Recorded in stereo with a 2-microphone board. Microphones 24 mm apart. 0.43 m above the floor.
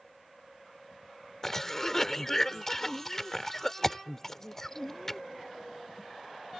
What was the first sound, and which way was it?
A cough, 15° left (ahead or behind).